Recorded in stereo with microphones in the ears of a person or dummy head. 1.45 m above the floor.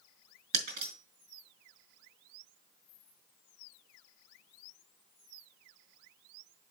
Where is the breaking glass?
60° right (ahead or behind), 3.5 m.